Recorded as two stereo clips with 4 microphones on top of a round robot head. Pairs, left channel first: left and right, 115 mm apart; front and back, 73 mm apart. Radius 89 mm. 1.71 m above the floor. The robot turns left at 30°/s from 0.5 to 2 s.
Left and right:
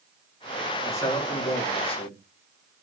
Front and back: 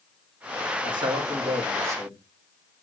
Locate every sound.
0.8 s a man speaking: 160° left, 4.5 m; by 2.2 s 125° left, 4.5 m